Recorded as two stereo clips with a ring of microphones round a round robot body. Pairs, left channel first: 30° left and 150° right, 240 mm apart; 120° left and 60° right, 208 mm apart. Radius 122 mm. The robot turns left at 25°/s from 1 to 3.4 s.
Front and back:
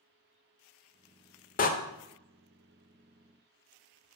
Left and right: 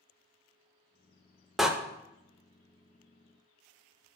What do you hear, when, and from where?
1.6 s a door slam: 30° left, 0.6 m; by 1.7 s 25° left, 0.6 m